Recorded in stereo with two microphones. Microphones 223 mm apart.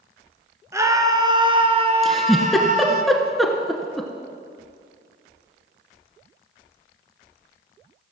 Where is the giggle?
Centre (ahead or behind), 1.4 m.